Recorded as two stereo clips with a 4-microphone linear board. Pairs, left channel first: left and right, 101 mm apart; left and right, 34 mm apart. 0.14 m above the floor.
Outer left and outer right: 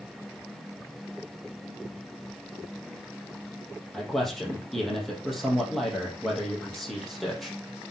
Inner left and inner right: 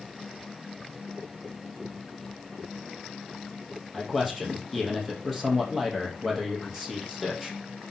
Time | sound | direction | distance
3.9 | a man speaking | centre (ahead or behind) | 4 m